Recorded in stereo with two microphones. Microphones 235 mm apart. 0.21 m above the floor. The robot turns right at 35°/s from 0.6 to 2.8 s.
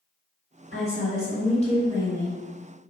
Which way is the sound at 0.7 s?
110° left.